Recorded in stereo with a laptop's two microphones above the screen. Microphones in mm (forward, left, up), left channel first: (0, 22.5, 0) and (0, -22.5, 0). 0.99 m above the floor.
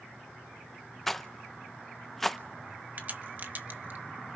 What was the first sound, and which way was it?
A rattle, 5° left (ahead or behind).